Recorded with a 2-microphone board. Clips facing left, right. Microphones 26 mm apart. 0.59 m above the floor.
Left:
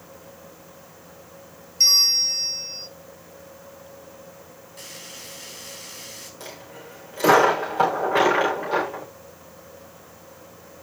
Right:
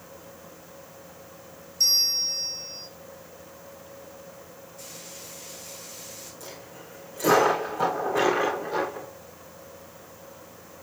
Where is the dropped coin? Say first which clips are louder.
Left 3 dB; 50° left (ahead or behind), 6 m.